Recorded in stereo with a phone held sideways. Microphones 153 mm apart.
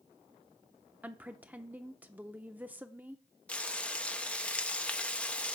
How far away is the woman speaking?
About 0.7 m.